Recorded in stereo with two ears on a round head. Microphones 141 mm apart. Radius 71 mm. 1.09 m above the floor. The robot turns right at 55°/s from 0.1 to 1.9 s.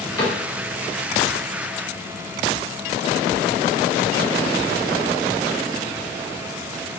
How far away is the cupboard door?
About 0.8 m.